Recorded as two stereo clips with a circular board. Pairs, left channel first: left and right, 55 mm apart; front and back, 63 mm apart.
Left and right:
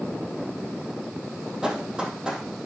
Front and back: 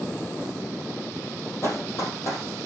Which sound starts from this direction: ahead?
Running footsteps, at 1.6 s.